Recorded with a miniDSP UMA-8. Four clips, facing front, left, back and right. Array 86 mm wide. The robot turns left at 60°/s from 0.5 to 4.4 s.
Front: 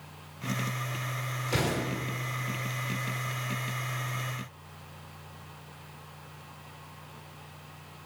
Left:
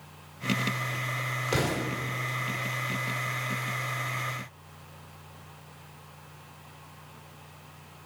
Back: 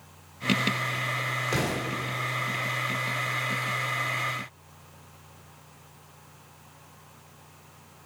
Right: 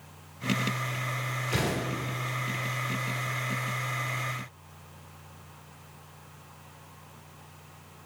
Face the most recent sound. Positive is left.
turn(degrees=-65)